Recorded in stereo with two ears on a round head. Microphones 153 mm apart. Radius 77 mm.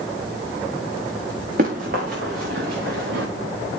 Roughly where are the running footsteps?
Right.